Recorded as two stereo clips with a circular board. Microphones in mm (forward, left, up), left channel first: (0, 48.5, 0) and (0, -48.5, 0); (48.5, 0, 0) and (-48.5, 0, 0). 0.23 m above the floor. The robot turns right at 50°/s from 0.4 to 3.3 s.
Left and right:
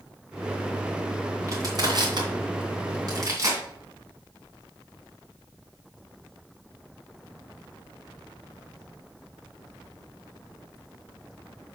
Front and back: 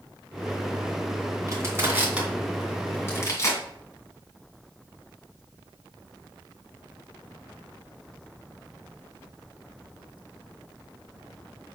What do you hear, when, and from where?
1.5 s crushing: 135° right, 2.5 m; by 3.6 s 45° right, 2.5 m